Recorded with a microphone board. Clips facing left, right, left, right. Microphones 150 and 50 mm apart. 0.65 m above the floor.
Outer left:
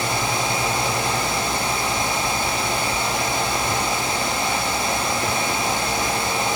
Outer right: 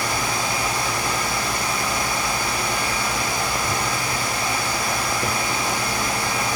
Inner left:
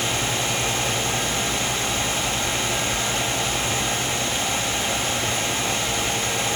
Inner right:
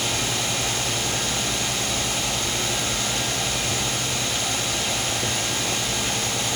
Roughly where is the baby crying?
No baby crying in this recording.